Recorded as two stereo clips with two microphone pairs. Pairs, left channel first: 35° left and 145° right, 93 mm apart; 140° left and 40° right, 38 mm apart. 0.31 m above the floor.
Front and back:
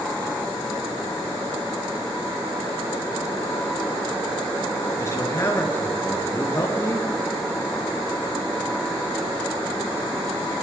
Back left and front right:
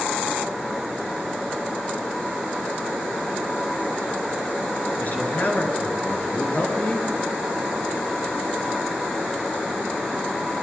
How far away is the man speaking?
About 6 m.